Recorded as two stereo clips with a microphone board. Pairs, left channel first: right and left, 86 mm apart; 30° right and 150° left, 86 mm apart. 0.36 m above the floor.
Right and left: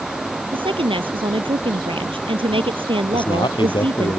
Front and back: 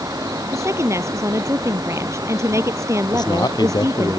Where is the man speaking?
65° right.